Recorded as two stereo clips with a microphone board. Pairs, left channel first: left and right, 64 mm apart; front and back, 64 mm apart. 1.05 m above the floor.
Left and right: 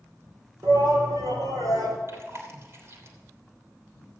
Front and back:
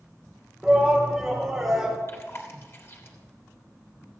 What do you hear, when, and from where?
0.6 s a shout: 90° right, 3.5 m
2.1 s chewing: 45° right, 3 m